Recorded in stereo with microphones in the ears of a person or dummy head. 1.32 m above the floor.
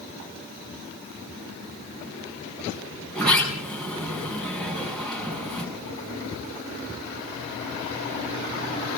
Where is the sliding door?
Centre (ahead or behind), 6 m.